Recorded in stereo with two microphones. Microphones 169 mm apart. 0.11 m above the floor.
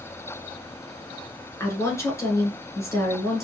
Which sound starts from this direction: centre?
A woman speaking, at 1.6 s.